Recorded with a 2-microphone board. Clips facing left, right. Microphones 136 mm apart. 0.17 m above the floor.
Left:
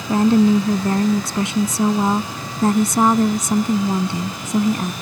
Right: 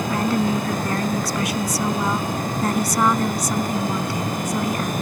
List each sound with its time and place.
0.1 s a woman speaking: 25° left (ahead or behind)